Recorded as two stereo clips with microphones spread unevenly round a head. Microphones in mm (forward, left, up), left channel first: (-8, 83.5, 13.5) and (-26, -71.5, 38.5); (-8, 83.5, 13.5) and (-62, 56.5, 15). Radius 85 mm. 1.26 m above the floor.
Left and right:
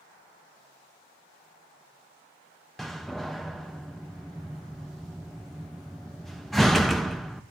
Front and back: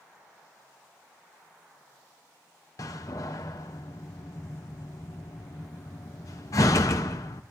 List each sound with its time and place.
2.8 s a door slam: 15° right, 0.6 m